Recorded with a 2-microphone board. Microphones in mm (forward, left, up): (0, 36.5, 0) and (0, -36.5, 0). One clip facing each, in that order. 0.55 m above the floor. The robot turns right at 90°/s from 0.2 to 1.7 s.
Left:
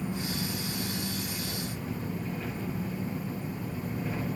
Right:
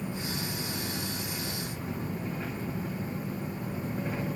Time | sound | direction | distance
0.0 | an engine running | 170° right | 1.0 m